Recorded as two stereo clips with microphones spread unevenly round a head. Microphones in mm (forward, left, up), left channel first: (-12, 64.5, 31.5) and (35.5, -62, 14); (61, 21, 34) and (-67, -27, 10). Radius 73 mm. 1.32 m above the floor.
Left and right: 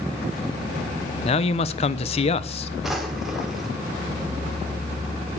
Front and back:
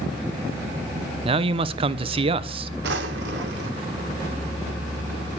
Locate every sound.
1.2 s a man speaking: 160° left, 0.8 m
2.8 s a drawer: 160° right, 1.8 m